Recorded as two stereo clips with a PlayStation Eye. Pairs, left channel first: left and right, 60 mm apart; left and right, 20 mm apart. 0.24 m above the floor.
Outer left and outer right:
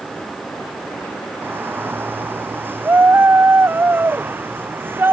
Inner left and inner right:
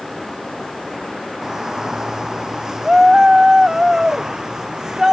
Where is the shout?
35° right (ahead or behind).